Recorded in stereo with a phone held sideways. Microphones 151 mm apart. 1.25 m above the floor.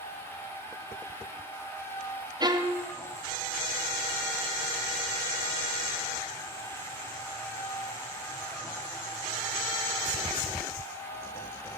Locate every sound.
0.0 s a machine running: 15° left (ahead or behind), 2.5 m
2.4 s a violin: 25° right (ahead or behind), 0.9 m